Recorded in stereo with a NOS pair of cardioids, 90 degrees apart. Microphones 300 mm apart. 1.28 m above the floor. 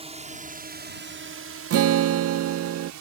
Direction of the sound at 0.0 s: 20° right.